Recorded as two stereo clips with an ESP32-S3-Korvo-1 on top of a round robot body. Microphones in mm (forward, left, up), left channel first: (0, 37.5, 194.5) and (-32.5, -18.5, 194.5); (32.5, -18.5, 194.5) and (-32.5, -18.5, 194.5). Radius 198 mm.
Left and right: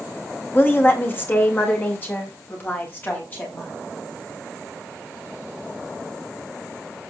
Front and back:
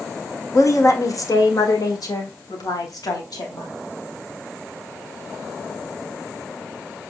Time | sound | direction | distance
0.5 | a woman speaking | 10° left | 2.0 m